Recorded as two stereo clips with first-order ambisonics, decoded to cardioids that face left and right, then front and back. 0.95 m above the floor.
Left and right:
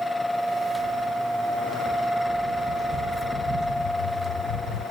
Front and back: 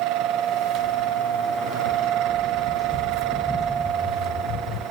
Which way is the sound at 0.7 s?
170° right.